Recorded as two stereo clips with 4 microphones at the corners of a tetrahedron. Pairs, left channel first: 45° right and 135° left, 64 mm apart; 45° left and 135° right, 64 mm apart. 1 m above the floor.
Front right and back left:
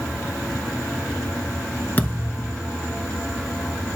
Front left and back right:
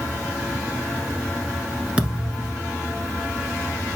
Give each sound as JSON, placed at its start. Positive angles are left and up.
{"t": 2.0, "sound": "a thud", "azimuth_deg": -75, "distance_m": 1.1}